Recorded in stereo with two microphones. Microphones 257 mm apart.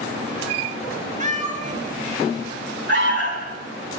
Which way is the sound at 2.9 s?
45° right (ahead or behind).